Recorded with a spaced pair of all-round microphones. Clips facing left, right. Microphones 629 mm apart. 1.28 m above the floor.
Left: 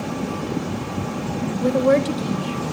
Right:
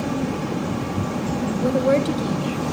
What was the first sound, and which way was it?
A woman speaking, 30° left (ahead or behind).